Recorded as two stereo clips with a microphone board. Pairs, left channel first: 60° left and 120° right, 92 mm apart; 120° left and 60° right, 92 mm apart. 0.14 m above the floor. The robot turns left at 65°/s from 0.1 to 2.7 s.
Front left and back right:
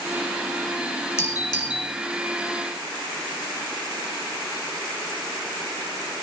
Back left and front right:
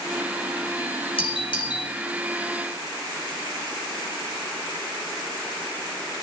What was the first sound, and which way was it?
A doorbell, 120° left.